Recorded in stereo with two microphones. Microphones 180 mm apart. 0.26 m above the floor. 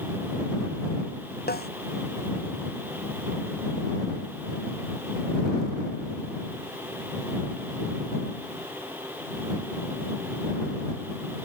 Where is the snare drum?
65° left (ahead or behind).